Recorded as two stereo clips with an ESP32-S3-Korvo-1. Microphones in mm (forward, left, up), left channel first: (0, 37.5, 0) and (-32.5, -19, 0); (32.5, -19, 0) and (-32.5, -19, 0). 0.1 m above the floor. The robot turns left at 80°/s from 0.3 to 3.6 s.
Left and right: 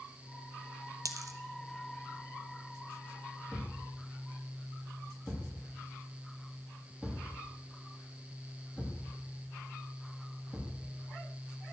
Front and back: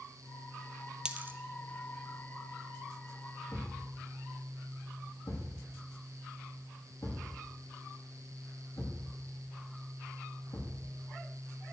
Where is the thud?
30° right, 7.5 m; by 10.8 s 35° right, 7.5 m.